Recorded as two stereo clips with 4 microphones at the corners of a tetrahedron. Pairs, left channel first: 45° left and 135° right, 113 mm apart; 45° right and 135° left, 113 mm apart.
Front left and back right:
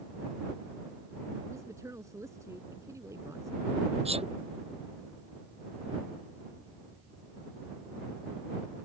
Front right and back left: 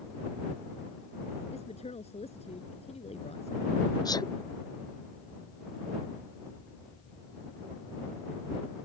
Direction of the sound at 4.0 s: 100° right.